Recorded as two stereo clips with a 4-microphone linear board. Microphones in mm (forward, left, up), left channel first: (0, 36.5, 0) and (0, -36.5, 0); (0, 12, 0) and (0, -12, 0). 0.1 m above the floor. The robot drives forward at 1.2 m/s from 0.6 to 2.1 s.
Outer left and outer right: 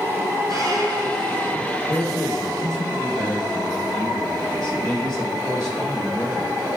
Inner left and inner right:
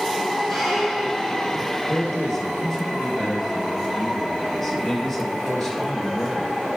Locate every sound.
0.5 s a squeak: 5° left (ahead or behind), 2 m
1.9 s a man speaking: 10° left (ahead or behind), 2 m